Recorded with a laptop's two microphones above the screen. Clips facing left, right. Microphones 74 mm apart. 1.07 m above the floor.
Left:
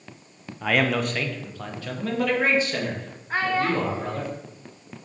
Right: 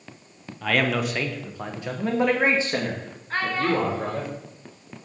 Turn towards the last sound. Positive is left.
turn(degrees=10)  # may be behind; listen again after turning